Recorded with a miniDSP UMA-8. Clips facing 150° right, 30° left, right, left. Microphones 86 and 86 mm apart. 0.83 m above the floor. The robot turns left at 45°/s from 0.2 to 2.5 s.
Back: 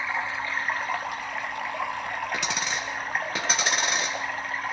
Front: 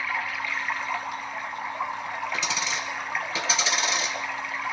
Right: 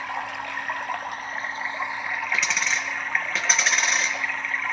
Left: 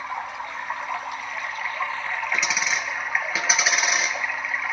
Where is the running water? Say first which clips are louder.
Back 1 dB, even; 85° right, 1.9 m; by 4.7 s 170° left, 1.9 m.